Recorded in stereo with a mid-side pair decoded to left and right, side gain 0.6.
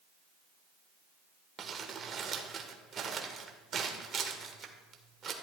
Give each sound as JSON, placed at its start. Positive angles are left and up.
{"t": 1.6, "sound": "crumpling", "azimuth_deg": -40, "distance_m": 1.7}